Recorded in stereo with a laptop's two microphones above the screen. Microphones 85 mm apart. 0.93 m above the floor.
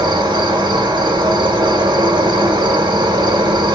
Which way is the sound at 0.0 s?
70° right (ahead or behind).